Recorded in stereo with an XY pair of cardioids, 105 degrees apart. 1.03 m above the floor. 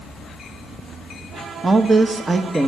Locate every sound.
1.6 s a woman speaking: 25° right, 1.1 m